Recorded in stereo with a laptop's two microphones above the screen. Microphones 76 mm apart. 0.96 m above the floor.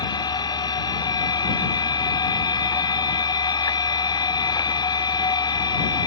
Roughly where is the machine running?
Left.